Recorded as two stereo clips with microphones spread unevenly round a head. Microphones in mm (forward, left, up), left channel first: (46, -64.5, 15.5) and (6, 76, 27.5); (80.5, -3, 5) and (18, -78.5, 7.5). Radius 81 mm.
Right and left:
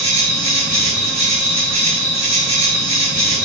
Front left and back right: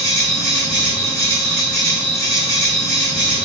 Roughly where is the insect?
Behind left.